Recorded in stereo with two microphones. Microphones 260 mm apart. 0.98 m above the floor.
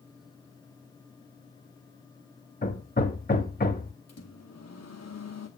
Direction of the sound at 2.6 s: 35° left (ahead or behind).